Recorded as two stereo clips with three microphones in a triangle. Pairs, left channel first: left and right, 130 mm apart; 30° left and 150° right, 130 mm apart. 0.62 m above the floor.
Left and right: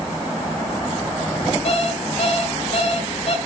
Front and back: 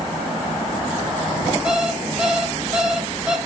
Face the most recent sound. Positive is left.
turn(degrees=125)